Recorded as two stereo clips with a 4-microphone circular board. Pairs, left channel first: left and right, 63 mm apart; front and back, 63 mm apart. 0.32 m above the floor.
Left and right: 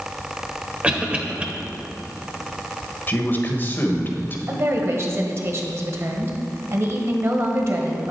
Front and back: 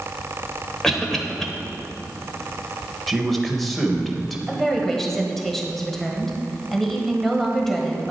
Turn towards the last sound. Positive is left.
turn(degrees=-85)